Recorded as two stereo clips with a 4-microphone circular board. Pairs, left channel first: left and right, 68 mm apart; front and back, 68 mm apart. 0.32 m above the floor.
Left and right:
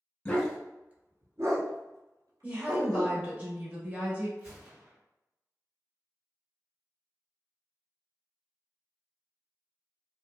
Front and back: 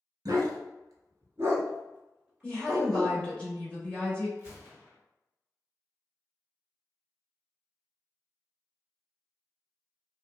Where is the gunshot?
25° right, 1.9 m.